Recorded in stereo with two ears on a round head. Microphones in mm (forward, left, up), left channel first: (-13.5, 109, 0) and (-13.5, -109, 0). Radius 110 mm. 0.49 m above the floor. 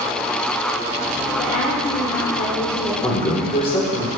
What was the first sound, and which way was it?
A woman speaking, 35° left (ahead or behind).